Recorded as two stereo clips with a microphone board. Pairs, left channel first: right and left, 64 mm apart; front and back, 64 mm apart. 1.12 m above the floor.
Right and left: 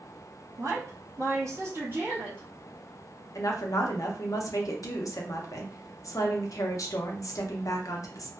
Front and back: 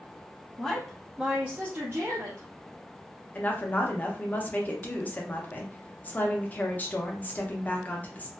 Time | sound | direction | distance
0.6 | a woman speaking | 75° left | 0.9 m
3.4 | a woman speaking | 65° right | 0.6 m